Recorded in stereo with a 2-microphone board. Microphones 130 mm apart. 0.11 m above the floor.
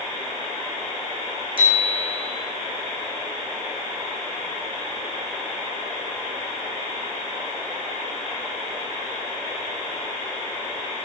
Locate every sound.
1.6 s a bicycle bell: 40° right (ahead or behind), 5.5 m